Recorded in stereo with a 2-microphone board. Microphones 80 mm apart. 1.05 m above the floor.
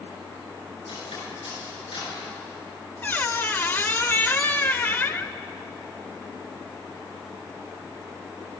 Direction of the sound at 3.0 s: 25° left (ahead or behind).